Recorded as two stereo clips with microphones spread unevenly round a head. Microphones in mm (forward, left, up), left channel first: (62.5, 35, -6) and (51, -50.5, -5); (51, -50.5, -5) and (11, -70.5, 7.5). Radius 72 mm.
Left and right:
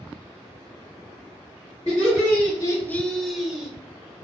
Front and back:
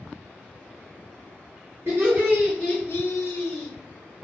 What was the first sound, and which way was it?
Laughter, 145° left.